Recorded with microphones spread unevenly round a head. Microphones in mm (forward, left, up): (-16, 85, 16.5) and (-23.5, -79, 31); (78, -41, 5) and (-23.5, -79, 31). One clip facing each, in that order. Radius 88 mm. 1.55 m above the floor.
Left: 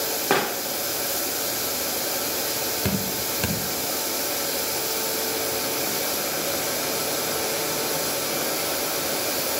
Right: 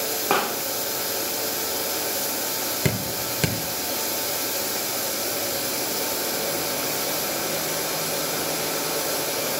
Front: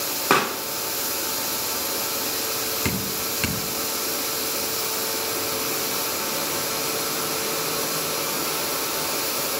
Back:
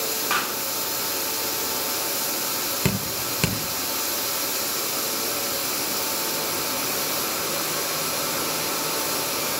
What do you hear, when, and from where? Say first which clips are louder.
0.3 s a pop: left 1 dB, front 9 dB; 5° left, 0.8 m
2.9 s dripping: right 2 dB, back 3 dB; 150° right, 1.7 m